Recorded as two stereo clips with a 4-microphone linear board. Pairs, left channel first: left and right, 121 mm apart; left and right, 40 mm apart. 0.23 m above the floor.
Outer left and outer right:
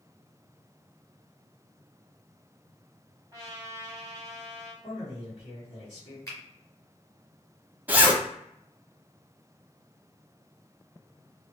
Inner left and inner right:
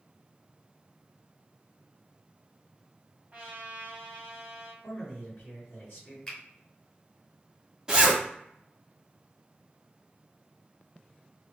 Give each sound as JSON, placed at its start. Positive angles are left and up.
{"t": 3.3, "sound": "a trumpet", "side_deg": -25, "distance_m": 1.4}
{"t": 4.8, "sound": "a man speaking", "side_deg": 45, "distance_m": 1.5}
{"t": 6.3, "sound": "a finger snap", "side_deg": 30, "distance_m": 1.4}
{"t": 7.9, "sound": "a zipper", "side_deg": -15, "distance_m": 0.8}